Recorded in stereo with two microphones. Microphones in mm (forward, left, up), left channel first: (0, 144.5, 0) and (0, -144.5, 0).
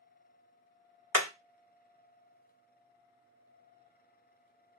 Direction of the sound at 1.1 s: 55° right (ahead or behind).